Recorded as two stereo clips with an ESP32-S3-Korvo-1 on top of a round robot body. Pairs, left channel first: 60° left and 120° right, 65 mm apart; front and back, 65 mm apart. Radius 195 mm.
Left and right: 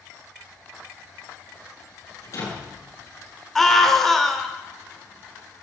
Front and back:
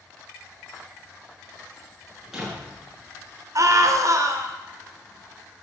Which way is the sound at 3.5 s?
145° left.